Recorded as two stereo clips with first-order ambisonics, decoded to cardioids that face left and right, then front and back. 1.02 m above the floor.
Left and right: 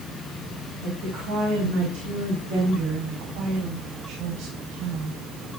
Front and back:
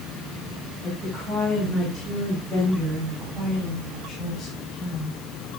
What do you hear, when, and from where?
0.8 s a woman speaking: 105° right, 6.5 m; by 5.2 s 75° right, 7 m